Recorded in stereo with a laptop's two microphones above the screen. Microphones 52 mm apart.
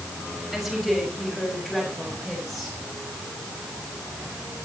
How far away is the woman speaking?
About 5 m.